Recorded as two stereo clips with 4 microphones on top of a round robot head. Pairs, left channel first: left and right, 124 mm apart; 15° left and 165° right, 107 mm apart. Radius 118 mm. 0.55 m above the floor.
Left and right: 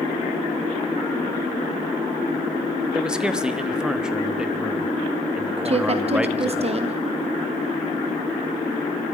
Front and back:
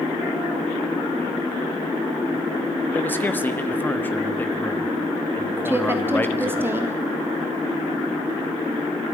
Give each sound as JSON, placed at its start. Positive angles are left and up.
{"t": 2.9, "sound": "a man speaking", "azimuth_deg": -15, "distance_m": 1.3}
{"t": 5.7, "sound": "a woman speaking", "azimuth_deg": -100, "distance_m": 1.2}